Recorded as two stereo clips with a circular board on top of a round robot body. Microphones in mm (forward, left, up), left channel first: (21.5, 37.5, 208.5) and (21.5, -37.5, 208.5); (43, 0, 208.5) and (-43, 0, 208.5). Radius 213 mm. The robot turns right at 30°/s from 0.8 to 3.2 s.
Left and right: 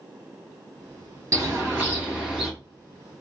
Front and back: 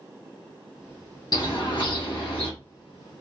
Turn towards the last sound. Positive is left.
turn(degrees=15)